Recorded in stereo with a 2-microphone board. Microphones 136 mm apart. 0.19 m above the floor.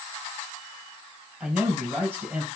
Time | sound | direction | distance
1.4 | a man speaking | 10° right (ahead or behind) | 3 m